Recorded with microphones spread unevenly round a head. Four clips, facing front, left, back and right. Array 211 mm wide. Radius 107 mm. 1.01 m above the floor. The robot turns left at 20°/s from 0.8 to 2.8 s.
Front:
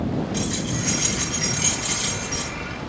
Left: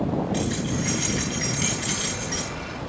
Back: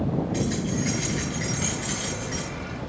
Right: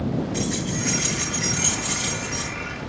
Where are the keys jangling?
140° left, 8.5 m; by 2.5 s 105° left, 8.5 m.